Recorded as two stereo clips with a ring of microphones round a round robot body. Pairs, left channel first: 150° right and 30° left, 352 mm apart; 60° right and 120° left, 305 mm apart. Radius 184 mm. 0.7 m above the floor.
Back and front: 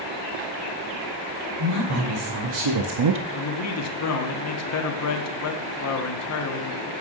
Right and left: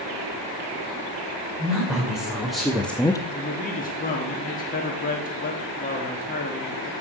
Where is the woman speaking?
35° left, 2.5 m; by 3.2 s 5° left, 0.5 m.